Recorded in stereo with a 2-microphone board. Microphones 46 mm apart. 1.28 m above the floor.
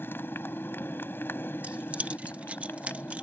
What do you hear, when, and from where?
0.0 s a motorcycle: 50° left (ahead or behind)
1.6 s keys jangling: 30° right (ahead or behind)